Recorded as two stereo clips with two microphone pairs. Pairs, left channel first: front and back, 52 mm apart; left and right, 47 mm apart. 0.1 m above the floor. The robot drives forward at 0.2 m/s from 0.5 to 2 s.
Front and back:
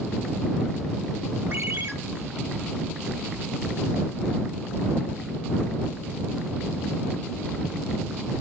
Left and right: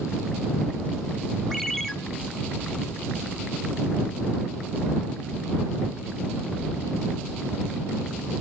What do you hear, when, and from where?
1.5 s a ringtone: 175° left, 0.7 m